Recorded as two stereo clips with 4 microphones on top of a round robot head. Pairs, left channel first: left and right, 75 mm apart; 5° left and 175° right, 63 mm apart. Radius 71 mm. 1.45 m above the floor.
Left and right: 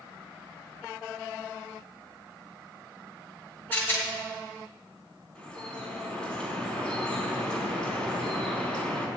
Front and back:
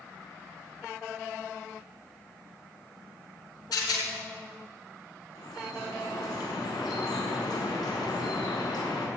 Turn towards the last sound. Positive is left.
turn(degrees=15)